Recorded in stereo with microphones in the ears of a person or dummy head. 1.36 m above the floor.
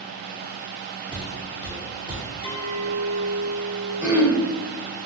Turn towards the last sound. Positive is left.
turn(degrees=-15)  # may be behind; listen again after turning